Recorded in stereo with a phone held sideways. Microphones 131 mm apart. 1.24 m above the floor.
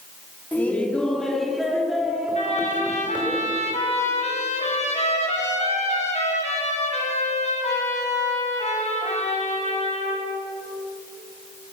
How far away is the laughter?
About 3 m.